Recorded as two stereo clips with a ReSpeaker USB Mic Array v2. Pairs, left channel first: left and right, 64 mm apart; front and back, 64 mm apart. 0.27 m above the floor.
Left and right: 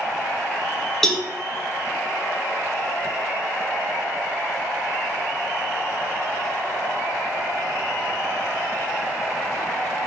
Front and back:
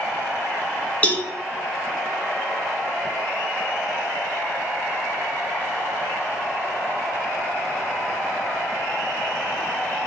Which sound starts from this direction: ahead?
A cowbell, at 1.0 s.